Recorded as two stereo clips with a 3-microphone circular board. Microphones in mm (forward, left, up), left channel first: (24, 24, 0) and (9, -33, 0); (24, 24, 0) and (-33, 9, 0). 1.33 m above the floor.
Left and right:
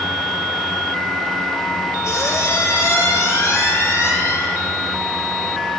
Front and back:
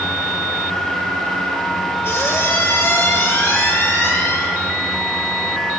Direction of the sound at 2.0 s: 50° left.